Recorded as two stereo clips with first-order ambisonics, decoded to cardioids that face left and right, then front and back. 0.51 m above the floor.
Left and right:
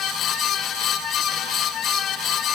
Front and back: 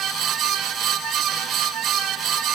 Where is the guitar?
No guitar in this recording.